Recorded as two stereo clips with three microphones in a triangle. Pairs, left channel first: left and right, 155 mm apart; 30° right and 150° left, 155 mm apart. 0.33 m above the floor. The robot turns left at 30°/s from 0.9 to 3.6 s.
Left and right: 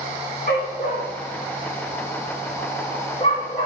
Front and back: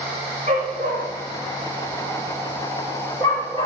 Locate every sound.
0.5 s a dog barking: 110° left, 10 m; by 3.7 s 30° left, 10 m